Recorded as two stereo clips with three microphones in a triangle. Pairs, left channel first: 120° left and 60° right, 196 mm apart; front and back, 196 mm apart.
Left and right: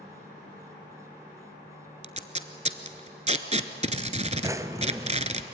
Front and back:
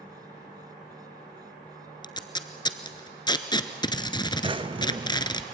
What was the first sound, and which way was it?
Tape being pulled, 50° right.